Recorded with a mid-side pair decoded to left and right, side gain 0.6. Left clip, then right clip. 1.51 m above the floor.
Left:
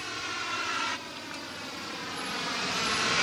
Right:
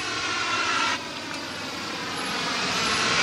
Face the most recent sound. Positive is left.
turn(degrees=-20)